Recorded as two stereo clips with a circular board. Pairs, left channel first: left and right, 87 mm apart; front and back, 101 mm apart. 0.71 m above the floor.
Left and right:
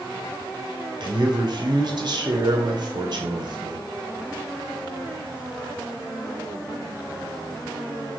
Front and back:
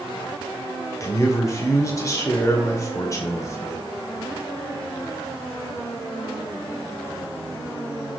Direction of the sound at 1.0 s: 60° right.